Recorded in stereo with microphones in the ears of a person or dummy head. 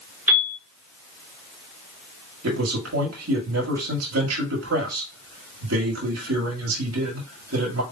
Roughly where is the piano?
Centre.